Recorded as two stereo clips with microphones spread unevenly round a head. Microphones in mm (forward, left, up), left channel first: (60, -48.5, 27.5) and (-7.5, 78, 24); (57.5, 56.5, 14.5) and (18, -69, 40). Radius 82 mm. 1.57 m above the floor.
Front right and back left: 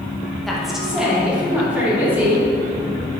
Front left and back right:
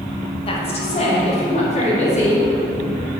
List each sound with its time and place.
0.5 s a woman speaking: 25° left, 2 m; by 2.5 s 40° left, 5 m